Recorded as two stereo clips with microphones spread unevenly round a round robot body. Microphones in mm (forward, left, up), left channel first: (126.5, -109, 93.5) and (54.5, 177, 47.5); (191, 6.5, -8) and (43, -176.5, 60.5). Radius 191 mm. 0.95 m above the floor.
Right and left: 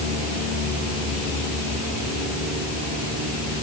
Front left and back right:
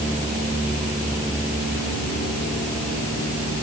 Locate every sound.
Only background noise.